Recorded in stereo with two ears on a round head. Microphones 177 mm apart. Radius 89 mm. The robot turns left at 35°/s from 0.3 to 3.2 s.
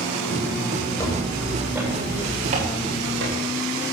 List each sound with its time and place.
1.0 s footsteps: 15° left (ahead or behind), 10 m; by 3.4 s 55° right (ahead or behind), 9 m